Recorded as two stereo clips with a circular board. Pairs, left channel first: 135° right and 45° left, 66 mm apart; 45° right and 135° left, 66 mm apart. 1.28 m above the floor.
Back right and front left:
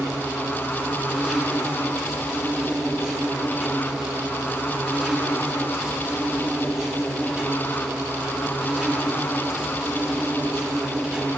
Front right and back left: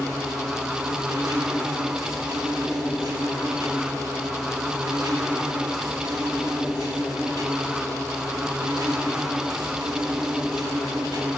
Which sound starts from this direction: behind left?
An insect, at 0.0 s.